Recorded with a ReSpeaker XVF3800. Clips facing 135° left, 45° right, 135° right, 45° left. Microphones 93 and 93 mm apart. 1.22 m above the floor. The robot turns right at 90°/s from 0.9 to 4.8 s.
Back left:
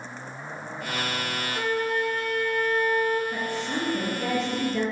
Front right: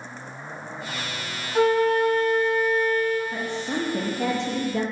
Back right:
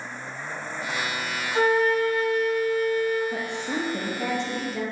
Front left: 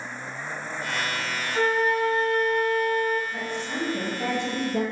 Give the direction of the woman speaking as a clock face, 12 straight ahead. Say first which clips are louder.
Front right 1 dB, back right 2 dB; 4 o'clock.